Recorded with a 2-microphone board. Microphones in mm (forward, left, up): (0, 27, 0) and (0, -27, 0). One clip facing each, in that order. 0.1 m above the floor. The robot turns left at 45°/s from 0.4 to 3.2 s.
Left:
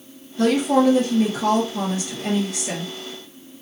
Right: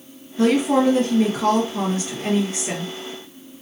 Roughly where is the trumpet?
No trumpet in this recording.